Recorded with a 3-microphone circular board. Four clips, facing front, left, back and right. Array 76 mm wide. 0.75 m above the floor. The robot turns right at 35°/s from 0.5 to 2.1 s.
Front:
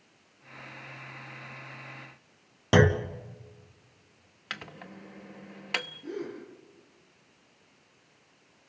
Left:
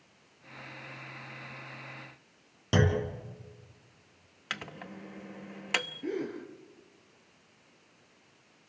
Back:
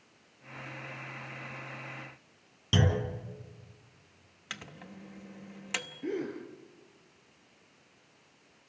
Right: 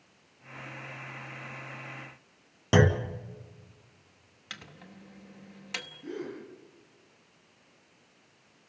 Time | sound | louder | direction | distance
2.7 | a clunk | right 4 dB, front 7 dB | 20° right | 1.7 m
4.5 | a microwave | left 7 dB, front 4 dB | 60° left | 0.9 m
6.0 | a gasp | right 1 dB, back 2 dB | 130° left | 5.5 m